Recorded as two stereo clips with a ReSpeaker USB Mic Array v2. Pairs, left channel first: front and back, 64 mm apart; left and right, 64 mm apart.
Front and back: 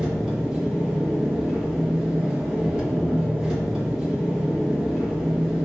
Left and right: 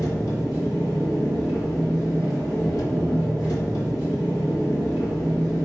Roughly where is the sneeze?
I don't hear a sneeze.